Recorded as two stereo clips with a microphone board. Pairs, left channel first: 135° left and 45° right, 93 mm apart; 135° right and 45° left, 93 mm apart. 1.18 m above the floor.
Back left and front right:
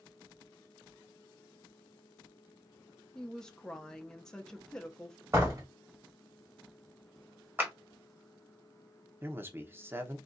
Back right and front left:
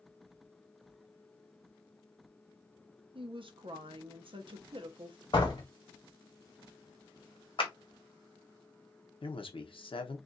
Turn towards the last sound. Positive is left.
turn(degrees=-110)